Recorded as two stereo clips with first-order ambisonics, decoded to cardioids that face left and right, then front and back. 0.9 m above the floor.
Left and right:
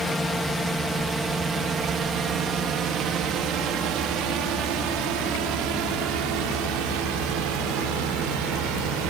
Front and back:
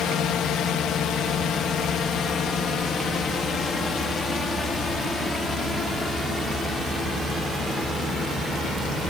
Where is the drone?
10° left; by 9.1 s 90° right.